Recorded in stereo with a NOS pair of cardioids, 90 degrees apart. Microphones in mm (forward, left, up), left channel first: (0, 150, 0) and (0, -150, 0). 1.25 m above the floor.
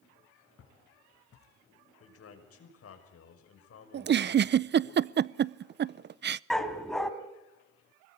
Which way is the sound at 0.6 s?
50° left.